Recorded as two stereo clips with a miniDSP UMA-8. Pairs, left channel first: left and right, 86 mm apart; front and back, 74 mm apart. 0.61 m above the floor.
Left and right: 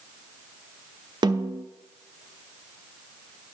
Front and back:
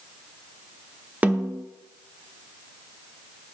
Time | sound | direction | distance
1.2 | a snare drum | 110° right | 0.7 m